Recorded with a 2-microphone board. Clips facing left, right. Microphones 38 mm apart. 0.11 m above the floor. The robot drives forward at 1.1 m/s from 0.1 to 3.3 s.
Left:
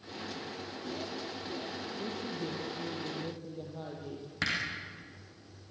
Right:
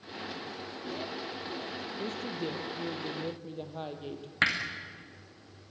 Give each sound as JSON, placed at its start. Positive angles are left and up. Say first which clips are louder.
{"t": 2.0, "sound": "a woman speaking", "louder": "right 3 dB", "side_deg": -60, "distance_m": 3.0}
{"t": 4.4, "sound": "hammering", "louder": "right 6 dB", "side_deg": -40, "distance_m": 4.5}